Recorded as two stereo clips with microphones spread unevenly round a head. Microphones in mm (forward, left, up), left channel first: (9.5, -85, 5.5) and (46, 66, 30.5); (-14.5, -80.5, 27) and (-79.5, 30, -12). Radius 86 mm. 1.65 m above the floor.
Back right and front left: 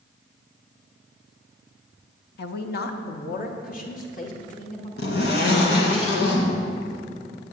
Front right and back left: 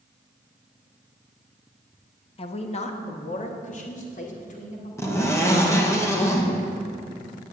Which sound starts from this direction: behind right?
A zipper, at 5.0 s.